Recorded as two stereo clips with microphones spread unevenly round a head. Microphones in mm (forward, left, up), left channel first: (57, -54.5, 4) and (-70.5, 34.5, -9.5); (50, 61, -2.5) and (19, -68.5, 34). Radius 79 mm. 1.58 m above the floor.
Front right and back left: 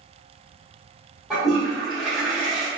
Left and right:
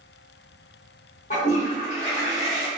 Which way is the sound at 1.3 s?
50° left.